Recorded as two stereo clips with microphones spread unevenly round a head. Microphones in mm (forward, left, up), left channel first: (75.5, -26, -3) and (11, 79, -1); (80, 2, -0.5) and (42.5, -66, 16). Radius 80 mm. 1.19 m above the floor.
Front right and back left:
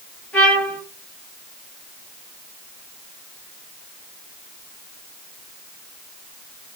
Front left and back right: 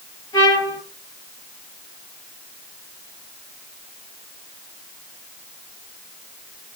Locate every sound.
0.3 s a trumpet: 20° left, 8.5 m